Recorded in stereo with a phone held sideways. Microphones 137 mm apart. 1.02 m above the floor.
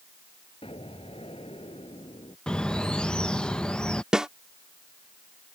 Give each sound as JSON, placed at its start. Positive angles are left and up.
{"t": 0.6, "sound": "an explosion", "side_deg": 45}
{"t": 2.5, "sound": "a bird", "side_deg": 5}
{"t": 4.1, "sound": "a snare drum", "side_deg": -5}